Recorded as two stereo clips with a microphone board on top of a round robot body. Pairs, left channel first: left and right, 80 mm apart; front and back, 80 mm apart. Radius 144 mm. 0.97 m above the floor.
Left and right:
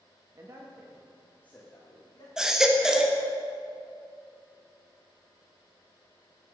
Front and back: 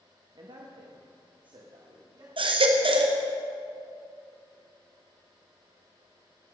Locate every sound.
0.3 s a man speaking: 140° right, 1.3 m; by 2.3 s 145° left, 2.5 m
2.4 s a baby crying: 175° right, 1.3 m